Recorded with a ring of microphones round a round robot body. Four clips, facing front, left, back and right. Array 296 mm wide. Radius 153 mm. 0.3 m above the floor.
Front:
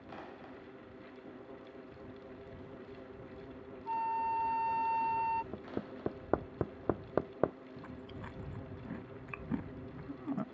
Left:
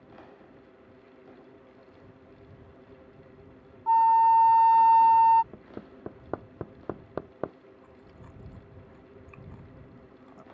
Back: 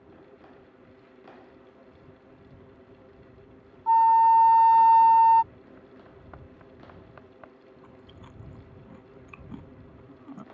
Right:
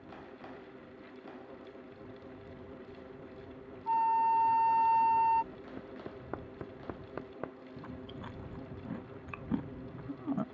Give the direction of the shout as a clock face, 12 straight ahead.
I don't hear a shout.